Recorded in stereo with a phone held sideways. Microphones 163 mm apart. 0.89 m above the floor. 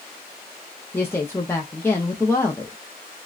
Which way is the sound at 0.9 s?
15° left (ahead or behind).